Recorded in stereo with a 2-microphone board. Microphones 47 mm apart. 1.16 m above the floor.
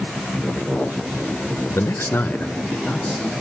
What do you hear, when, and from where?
1.7 s a man speaking: 70° left (ahead or behind), 0.8 m; by 3.3 s 15° left (ahead or behind), 2 m